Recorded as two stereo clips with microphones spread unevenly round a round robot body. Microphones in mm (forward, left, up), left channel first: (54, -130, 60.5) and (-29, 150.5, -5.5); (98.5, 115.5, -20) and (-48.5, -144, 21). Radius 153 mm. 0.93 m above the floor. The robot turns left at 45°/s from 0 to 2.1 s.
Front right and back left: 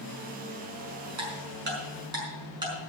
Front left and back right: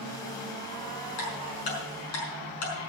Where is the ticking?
70° left, 5 m; by 2.7 s 30° left, 5 m.